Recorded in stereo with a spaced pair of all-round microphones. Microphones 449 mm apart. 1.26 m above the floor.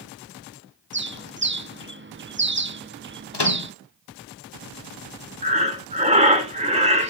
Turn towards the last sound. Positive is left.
turn(degrees=-15)  # may be behind; listen again after turning